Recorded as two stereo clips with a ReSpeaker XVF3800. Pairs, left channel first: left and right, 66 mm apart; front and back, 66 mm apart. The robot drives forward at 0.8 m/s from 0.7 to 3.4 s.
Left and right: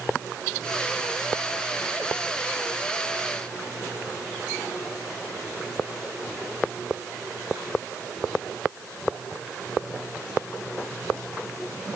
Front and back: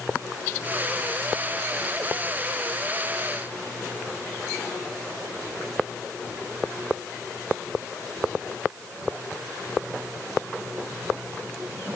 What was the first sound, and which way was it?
Only background noise.